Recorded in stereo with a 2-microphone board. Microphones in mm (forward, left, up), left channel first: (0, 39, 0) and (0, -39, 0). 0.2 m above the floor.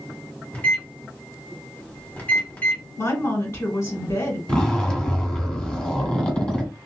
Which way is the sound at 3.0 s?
40° left (ahead or behind).